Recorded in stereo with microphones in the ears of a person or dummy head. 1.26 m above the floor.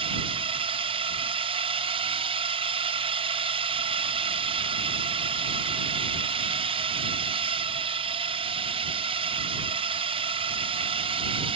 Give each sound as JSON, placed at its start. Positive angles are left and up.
{"t": 0.0, "sound": "a drone", "side_deg": -25}